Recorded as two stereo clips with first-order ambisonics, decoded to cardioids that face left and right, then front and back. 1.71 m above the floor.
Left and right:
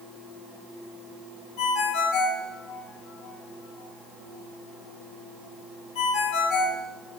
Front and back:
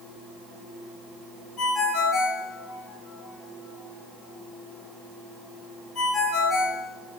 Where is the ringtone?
70° left, 2.5 m.